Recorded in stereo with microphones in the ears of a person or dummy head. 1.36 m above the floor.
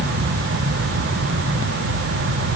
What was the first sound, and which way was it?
Only background noise.